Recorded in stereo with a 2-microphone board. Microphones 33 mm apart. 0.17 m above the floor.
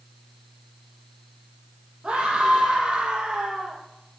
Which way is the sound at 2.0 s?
35° right (ahead or behind).